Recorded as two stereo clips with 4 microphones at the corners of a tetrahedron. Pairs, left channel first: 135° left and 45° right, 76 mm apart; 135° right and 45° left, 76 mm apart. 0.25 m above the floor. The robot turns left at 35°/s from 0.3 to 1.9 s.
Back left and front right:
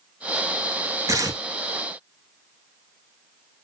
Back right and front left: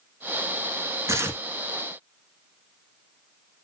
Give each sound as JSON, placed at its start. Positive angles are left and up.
{"t": 1.1, "sound": "tearing paper", "azimuth_deg": -5, "distance_m": 0.9}